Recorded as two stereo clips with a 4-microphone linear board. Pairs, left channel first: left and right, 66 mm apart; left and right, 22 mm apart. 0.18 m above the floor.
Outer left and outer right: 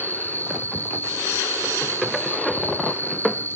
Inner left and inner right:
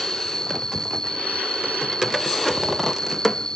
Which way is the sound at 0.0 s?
30° left (ahead or behind).